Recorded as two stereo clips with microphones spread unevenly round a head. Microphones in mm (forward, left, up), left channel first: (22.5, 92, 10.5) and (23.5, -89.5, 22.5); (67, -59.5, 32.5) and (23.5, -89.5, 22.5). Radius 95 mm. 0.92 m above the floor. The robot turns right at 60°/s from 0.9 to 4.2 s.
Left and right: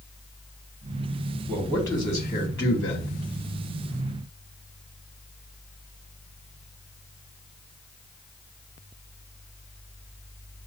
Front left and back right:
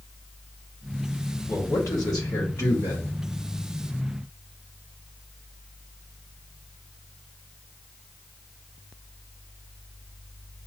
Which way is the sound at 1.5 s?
5° right.